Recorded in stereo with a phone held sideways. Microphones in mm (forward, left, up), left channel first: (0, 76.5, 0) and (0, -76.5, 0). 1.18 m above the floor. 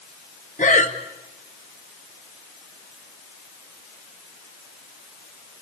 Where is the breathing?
55° left (ahead or behind), 1.9 m.